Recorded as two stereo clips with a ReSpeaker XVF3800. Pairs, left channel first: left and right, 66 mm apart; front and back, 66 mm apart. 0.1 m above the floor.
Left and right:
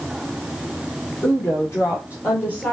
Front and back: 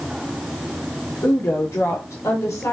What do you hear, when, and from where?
1.2 s a woman speaking: 45° left, 3.5 m; by 2.7 s 30° left, 2 m